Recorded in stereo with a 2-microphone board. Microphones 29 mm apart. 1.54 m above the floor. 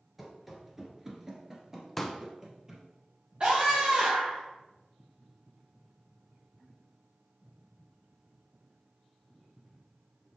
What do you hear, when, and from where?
0.2 s running footsteps: 5° right (ahead or behind), 1.6 m; by 2.9 s 20° right (ahead or behind), 2.5 m
2.0 s a pop: 5° left (ahead or behind), 0.7 m
3.4 s a scream: 35° right (ahead or behind), 1.2 m